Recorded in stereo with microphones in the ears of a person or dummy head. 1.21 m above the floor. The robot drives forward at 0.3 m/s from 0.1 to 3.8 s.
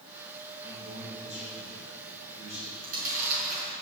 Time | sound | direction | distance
0.6 | a man speaking | 35° right (ahead or behind) | 4 m
2.8 | chewing | 50° right (ahead or behind) | 4.5 m